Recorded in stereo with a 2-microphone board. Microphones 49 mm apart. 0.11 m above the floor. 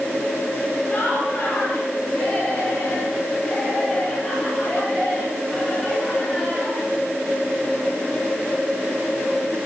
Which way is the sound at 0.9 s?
50° left (ahead or behind).